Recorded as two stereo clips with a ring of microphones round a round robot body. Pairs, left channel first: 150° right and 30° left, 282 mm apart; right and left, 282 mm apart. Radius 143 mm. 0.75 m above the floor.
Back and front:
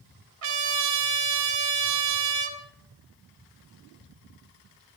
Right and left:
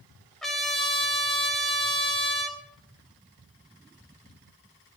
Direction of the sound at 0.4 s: Straight ahead.